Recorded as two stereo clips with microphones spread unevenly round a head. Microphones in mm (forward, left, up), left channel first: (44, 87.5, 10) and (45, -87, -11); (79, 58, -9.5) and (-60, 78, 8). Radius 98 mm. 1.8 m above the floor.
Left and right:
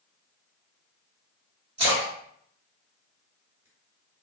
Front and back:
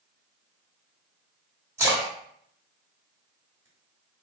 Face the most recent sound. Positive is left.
turn(degrees=-135)